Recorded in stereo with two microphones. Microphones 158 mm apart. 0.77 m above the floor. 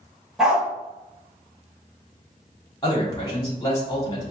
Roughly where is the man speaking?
Left.